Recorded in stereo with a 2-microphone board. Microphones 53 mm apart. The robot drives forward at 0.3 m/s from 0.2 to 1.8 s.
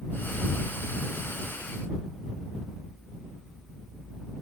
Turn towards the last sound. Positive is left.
No sound to turn to.